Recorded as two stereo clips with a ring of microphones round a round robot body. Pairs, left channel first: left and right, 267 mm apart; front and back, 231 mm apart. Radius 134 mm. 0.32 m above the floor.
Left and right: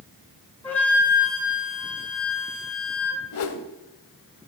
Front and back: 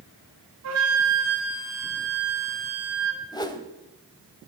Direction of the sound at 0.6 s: 175° left.